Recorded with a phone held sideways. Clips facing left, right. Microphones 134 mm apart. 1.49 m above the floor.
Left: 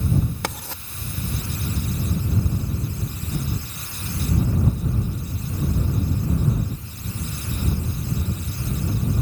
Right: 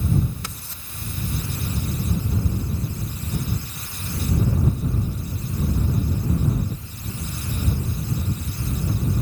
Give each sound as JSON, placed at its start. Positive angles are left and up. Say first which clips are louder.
{"t": 0.4, "sound": "writing", "louder": "left 8 dB", "side_deg": 85}